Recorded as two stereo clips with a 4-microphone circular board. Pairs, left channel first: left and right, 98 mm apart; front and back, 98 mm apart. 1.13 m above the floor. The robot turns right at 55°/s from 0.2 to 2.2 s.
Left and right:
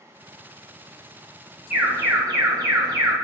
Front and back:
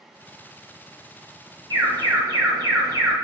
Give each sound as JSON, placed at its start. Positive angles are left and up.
{"t": 1.7, "sound": "an alarm", "azimuth_deg": -160, "distance_m": 1.6}